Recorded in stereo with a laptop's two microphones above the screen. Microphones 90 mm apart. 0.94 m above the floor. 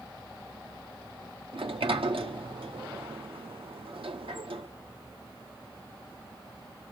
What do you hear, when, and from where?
1.5 s a sliding door: 85° right, 1.2 m